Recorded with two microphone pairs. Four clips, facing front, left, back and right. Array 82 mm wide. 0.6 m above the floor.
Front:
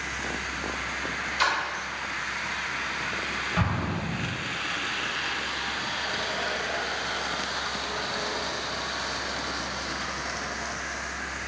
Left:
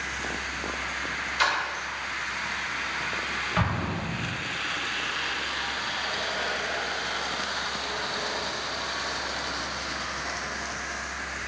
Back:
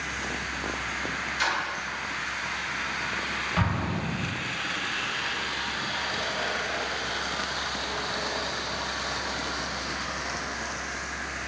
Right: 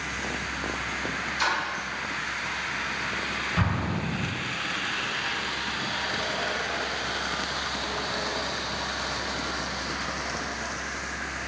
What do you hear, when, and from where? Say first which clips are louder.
1.4 s a splash: left 2 dB, front 3 dB; 65° left, 0.9 m
3.6 s an explosion: even, back 1 dB; 125° left, 0.8 m